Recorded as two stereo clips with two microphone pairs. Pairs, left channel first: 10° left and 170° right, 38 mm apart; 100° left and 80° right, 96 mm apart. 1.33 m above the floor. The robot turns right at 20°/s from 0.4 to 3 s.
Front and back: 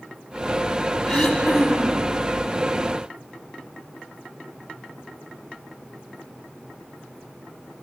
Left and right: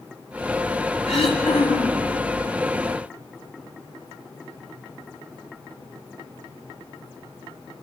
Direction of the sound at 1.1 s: 90° left.